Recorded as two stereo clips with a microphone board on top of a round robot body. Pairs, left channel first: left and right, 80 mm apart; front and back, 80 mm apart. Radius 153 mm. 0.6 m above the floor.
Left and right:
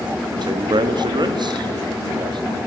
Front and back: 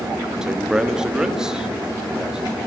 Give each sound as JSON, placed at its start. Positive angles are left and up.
{"t": 0.4, "sound": "a man speaking", "azimuth_deg": -95, "distance_m": 1.1}